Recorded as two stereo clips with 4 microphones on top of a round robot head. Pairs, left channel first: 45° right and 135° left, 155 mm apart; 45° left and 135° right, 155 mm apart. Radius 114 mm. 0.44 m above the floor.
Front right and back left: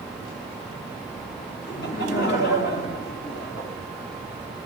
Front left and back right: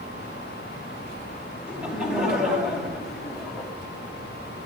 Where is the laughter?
50° right, 5.5 m; by 3.7 s 45° right, 4.5 m.